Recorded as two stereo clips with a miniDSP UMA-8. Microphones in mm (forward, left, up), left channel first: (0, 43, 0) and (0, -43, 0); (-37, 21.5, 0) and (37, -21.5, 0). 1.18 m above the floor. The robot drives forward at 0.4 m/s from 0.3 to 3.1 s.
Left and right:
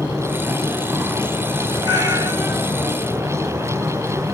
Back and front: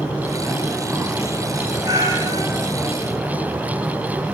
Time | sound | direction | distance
1.8 | a cat meowing | 65° right | 1.6 m